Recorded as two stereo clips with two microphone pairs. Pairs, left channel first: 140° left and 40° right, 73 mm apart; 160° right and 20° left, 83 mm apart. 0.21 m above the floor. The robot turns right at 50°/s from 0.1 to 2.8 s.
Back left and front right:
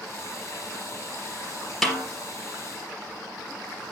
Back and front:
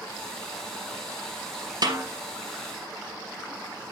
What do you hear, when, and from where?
1.8 s a snare drum: 50° left, 3 m; by 2.0 s 60° left, 3 m